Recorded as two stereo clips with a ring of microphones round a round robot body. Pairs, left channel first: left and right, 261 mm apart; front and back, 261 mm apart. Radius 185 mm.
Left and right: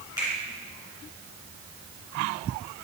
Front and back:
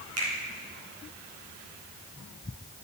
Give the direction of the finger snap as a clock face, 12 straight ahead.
6 o'clock.